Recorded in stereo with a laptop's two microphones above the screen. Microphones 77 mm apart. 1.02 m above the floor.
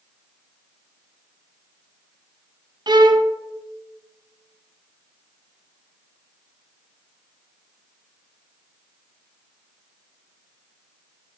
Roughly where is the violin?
Right.